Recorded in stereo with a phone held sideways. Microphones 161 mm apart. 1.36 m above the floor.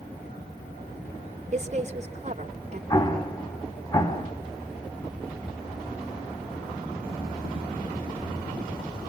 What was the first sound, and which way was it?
A woman speaking, 45° right (ahead or behind).